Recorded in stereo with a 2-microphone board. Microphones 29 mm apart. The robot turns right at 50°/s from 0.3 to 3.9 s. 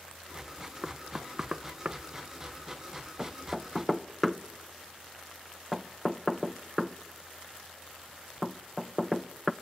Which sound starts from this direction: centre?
Knocking, at 0.8 s.